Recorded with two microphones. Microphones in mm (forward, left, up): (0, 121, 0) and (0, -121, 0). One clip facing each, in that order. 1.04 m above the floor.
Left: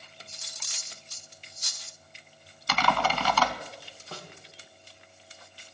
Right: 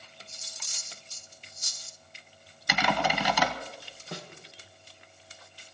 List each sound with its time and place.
0.3 s cutlery clinking: 75° left (ahead or behind), 0.6 m
2.7 s typing on a keyboard: 15° right (ahead or behind), 1.2 m
4.1 s a snare drum: 20° right (ahead or behind), 1.7 m